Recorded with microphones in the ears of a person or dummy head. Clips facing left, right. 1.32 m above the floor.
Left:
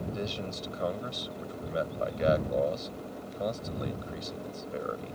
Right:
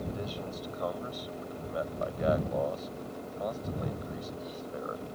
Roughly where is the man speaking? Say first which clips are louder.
Left 2 dB; left.